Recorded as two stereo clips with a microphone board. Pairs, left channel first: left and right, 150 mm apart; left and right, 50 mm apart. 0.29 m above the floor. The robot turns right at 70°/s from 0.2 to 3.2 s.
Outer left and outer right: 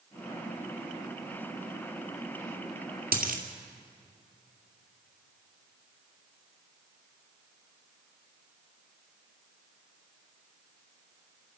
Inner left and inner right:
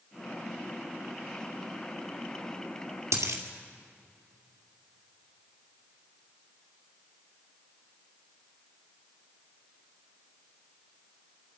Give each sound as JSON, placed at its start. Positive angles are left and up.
{"t": 3.1, "sound": "a dropped coin", "side_deg": -75, "distance_m": 2.0}